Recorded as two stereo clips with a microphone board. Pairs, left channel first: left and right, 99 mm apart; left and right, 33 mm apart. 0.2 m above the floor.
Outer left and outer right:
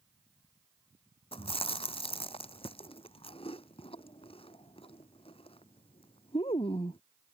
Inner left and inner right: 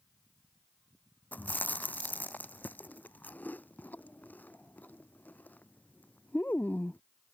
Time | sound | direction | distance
1.3 | chewing | 80° left | ?